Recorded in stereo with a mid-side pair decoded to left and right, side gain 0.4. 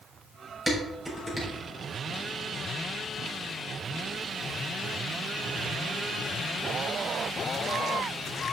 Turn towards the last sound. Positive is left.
turn(degrees=-15)